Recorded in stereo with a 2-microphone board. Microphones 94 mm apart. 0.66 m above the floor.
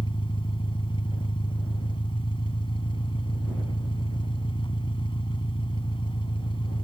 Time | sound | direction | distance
0.0 | an engine running | 65° left (ahead or behind) | ?